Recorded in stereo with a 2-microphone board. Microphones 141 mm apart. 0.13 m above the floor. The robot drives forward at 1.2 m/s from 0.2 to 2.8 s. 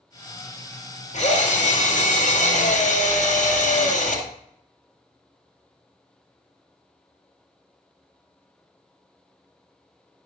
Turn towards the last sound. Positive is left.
turn(degrees=65)  # may be behind; listen again after turning